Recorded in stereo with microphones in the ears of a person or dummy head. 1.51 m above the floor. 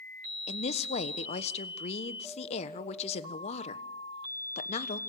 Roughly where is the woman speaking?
Left.